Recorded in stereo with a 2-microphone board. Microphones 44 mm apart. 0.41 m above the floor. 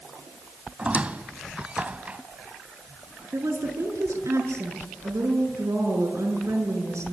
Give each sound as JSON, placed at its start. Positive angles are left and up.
{"t": 0.8, "sound": "a squeak", "side_deg": -25, "distance_m": 1.1}
{"t": 3.3, "sound": "a woman speaking", "side_deg": -80, "distance_m": 6.5}